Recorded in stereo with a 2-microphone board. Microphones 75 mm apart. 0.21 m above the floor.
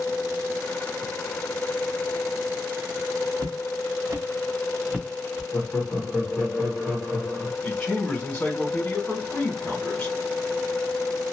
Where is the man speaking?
15° left (ahead or behind), 1.6 m.